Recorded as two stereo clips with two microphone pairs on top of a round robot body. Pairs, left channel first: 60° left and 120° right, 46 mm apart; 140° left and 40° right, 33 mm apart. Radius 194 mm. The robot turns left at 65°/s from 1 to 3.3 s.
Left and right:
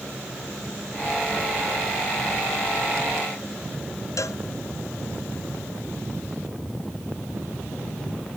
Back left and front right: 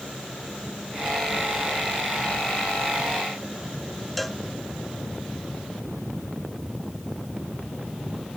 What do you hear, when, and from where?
4.2 s a cowbell: 50° left